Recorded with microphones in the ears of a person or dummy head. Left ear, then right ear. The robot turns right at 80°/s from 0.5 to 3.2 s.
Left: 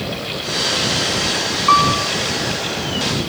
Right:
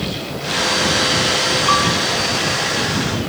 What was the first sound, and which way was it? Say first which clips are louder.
A piano: left 6 dB; 30° left.